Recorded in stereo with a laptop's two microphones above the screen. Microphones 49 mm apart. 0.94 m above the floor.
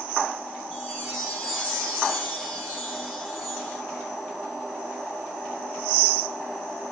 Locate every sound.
0.7 s a chime: centre (ahead or behind), 4.5 m